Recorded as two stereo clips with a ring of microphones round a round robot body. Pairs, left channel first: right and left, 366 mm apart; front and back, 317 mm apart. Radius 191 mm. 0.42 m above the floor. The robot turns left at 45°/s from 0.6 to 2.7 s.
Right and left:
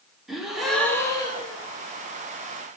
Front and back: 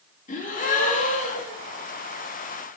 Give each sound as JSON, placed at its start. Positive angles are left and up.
{"t": 0.3, "sound": "a gasp", "azimuth_deg": 0, "distance_m": 1.3}